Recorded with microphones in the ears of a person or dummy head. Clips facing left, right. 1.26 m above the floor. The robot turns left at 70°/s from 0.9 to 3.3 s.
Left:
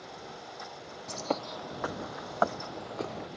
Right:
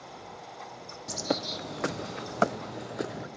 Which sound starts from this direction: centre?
A bird, at 1.1 s.